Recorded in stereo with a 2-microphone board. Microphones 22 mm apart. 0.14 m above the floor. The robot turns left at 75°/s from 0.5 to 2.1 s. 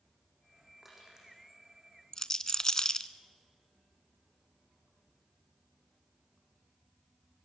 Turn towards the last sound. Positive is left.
turn(degrees=25)  # may be behind; listen again after turning